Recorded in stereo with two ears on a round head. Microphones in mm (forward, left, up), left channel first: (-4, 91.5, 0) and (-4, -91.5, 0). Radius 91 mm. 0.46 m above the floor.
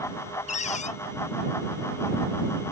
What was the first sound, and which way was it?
A cupboard door, 35° left (ahead or behind).